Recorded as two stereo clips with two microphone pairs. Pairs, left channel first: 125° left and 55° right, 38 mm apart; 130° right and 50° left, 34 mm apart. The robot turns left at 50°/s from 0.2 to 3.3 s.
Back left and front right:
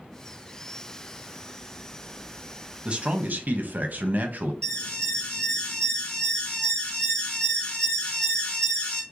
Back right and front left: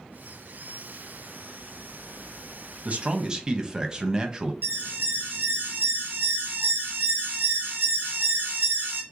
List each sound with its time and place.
2.9 s a man speaking: 10° left, 0.9 m; by 4.5 s 15° right, 0.9 m
4.6 s an alarm: 65° left, 1.7 m